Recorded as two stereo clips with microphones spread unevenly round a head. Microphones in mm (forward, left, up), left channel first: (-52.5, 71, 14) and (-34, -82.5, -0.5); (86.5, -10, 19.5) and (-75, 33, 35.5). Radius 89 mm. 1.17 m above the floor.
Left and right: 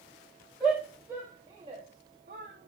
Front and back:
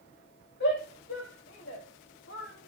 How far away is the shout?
About 1.7 m.